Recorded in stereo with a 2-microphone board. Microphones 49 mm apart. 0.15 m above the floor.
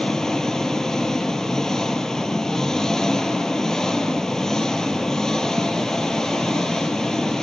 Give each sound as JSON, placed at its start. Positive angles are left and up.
{"t": 0.0, "sound": "an engine running", "side_deg": 10, "distance_m": 0.9}